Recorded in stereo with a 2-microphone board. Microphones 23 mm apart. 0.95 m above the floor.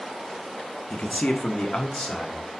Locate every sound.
0.9 s a man speaking: 75° left (ahead or behind), 1.4 m; by 2.4 s 35° left (ahead or behind), 2.5 m